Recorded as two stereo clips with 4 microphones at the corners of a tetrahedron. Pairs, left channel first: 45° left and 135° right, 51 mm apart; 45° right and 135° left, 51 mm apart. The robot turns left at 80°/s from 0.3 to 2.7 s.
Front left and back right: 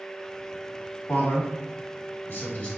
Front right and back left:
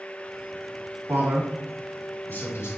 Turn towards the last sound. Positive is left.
turn(degrees=-20)